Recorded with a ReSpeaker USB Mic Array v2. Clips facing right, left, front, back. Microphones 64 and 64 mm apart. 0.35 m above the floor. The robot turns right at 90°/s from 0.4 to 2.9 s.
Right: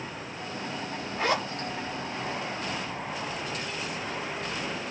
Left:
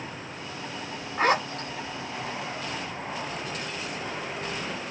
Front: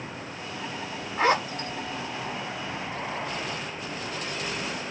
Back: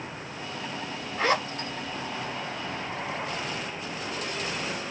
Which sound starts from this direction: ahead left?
A zipper, at 1.2 s.